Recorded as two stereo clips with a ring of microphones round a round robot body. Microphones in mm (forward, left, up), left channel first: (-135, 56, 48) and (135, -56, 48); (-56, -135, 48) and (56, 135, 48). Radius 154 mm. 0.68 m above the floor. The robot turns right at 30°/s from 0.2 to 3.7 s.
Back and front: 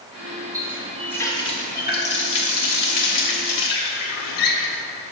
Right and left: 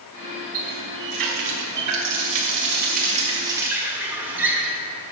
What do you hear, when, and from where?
0.5 s a running tap: 55° left, 1.2 m; by 5.1 s 150° left, 1.2 m